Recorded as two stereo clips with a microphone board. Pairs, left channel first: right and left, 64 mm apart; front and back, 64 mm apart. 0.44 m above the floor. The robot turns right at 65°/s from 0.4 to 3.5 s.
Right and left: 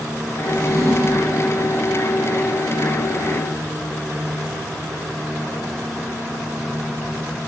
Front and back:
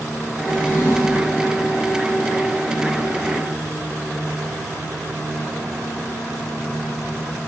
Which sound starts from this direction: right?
A drawer, at 0.5 s.